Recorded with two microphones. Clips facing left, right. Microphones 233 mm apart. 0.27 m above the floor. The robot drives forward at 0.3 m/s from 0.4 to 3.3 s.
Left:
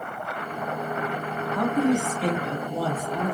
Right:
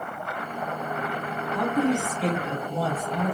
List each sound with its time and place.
1.5 s a woman speaking: 35° left (ahead or behind), 1.5 m; by 3.4 s 40° left (ahead or behind), 1.4 m